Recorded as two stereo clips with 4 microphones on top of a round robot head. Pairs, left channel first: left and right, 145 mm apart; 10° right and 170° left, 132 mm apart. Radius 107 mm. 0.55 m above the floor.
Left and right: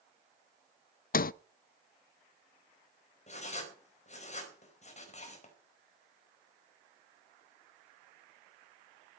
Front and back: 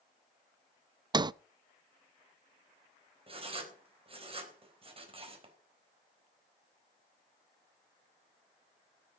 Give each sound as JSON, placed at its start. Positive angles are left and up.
{"t": 1.1, "sound": "a sliding door", "azimuth_deg": 110, "distance_m": 0.5}
{"t": 3.3, "sound": "writing", "azimuth_deg": 125, "distance_m": 4.0}